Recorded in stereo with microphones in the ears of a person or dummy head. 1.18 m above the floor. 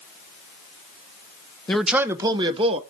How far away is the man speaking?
About 0.5 m.